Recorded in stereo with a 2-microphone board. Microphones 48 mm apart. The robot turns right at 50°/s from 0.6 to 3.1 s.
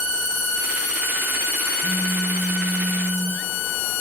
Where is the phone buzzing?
80° left, 8 m; by 3.4 s 145° left, 8 m.